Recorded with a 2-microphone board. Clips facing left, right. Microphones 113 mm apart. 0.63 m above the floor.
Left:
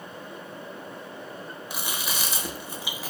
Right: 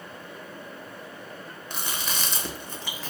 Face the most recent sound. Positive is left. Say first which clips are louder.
# even
turn(degrees=10)  # may be behind; listen again after turning